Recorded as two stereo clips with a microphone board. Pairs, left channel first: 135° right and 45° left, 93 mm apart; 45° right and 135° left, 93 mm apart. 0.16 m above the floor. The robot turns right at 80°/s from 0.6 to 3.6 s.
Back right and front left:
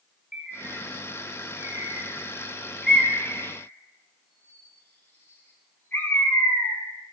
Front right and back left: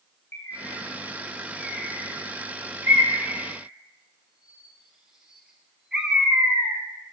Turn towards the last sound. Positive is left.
turn(degrees=-155)